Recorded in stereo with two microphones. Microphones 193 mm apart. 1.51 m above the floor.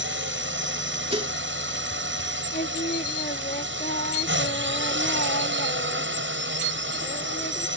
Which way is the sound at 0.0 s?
85° right.